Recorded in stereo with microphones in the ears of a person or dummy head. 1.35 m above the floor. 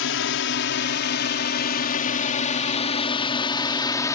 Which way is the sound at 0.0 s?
65° left (ahead or behind).